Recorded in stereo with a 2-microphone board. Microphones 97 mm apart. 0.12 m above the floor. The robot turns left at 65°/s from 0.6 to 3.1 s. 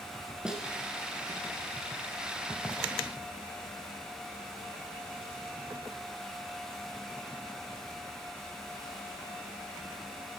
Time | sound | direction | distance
0.5 | a snare drum | 10° right (ahead or behind) | 1.0 m